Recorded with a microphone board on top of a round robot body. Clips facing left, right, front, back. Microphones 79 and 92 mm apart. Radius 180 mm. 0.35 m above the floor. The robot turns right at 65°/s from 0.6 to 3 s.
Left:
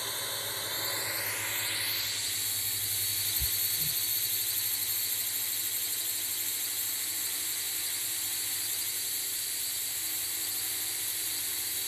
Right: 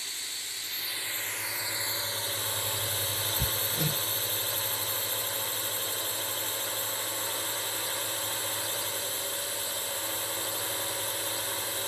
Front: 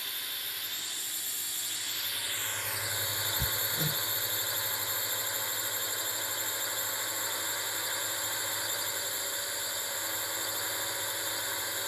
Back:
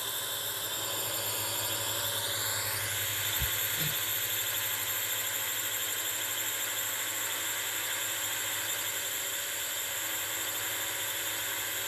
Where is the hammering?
65° right.